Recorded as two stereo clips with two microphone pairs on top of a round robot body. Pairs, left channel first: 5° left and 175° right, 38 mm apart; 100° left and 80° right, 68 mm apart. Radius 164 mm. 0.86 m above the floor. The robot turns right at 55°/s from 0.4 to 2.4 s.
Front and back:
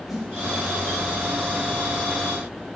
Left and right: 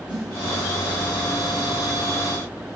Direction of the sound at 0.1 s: 85° right.